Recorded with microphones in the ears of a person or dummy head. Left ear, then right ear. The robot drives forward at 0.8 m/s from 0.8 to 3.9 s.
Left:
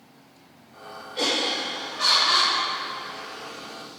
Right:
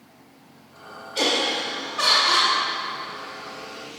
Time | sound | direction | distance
1.1 | laughter | 35° right (ahead or behind) | 2 m